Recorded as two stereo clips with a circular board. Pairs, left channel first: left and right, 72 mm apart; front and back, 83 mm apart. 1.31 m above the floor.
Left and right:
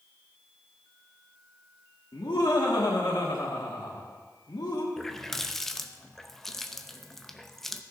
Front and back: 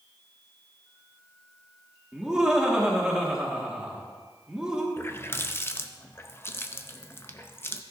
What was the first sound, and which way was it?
Laughter, 100° left.